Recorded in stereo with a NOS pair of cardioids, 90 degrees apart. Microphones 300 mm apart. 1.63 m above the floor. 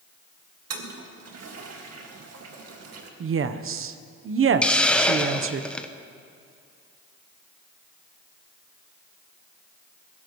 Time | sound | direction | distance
0.7 | a toilet flushing | 55° right | 2 m
3.2 | a woman speaking | 45° right | 0.9 m
4.6 | a hiss | 5° left | 0.9 m